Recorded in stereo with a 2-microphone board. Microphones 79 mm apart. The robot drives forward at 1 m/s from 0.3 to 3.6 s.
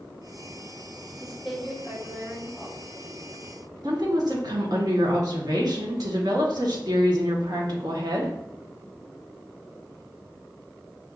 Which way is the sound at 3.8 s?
55° right (ahead or behind).